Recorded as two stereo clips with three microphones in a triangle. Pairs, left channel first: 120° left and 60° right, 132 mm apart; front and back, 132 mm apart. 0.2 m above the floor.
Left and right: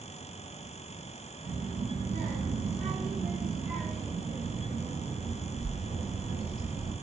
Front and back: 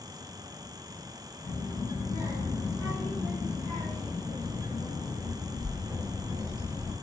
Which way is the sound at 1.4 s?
60° right.